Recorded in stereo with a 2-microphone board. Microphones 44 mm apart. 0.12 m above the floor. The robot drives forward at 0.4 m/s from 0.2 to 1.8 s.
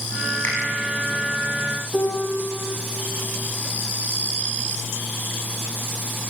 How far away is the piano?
About 5 m.